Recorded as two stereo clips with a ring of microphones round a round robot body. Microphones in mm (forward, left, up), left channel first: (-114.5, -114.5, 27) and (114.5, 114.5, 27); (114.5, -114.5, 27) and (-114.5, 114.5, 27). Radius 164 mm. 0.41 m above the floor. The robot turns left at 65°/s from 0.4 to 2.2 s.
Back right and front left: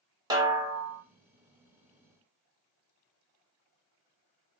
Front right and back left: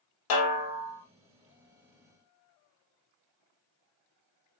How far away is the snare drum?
About 1.4 m.